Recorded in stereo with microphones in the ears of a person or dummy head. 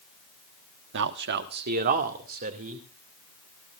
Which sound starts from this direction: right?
A man speaking, at 0.9 s.